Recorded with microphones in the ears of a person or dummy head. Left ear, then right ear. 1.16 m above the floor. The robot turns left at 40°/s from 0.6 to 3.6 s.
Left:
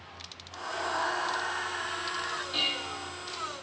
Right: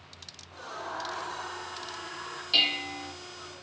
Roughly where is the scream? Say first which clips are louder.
Left 6 dB; left.